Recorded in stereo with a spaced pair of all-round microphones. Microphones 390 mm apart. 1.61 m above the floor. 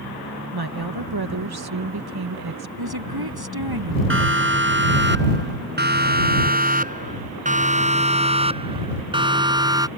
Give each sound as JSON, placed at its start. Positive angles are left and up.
{"t": 0.5, "sound": "a woman speaking", "side_deg": -70}
{"t": 2.8, "sound": "a woman speaking", "side_deg": -70}
{"t": 4.1, "sound": "a siren", "side_deg": -30}